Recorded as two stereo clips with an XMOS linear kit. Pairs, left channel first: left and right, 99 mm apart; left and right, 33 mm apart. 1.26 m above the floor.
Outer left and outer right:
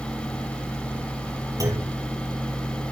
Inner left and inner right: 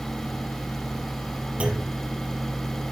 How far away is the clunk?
About 6 m.